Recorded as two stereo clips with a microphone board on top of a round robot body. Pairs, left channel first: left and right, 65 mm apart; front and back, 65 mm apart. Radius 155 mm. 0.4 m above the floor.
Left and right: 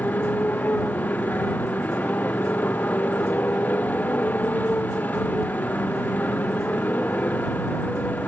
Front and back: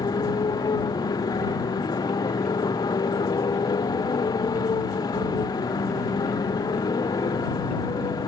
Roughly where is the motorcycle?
Ahead left.